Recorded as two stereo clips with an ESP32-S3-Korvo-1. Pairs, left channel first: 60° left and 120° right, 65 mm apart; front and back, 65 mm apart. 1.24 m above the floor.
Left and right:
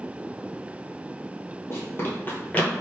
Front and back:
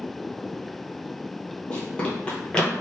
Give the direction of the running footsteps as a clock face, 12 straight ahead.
10 o'clock.